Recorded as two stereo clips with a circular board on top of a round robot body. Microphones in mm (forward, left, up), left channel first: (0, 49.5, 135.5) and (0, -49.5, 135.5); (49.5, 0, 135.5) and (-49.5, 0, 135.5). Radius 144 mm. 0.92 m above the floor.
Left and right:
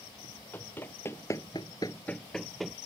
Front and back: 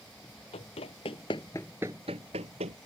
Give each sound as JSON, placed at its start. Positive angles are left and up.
{"t": 0.5, "sound": "running footsteps", "azimuth_deg": 20}